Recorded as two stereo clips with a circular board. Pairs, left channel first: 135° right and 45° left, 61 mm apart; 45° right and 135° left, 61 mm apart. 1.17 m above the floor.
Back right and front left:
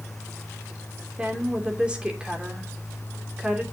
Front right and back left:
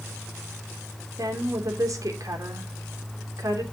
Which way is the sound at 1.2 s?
120° left.